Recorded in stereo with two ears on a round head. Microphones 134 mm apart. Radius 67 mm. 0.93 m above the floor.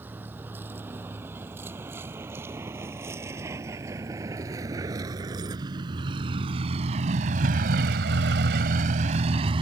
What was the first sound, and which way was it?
A vehicle, 15° right (ahead or behind).